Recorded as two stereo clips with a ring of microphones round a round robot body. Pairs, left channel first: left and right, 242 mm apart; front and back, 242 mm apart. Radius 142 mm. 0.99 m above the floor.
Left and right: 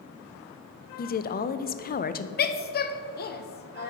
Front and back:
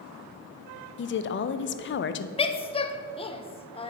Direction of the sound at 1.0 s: 40° left.